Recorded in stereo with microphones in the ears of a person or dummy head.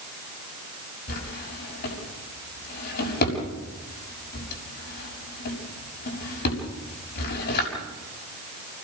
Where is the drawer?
55° left (ahead or behind), 6.5 m.